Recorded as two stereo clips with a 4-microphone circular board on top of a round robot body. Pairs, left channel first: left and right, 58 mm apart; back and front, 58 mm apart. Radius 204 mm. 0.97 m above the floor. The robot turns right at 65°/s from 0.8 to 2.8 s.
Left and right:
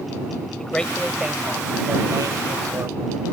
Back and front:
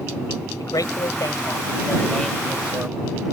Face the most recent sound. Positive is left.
turn(degrees=-65)